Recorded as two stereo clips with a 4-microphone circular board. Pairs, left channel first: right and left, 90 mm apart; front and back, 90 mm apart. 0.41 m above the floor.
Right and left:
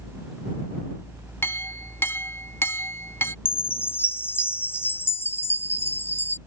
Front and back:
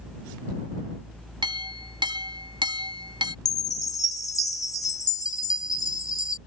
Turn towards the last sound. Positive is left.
turn(degrees=-35)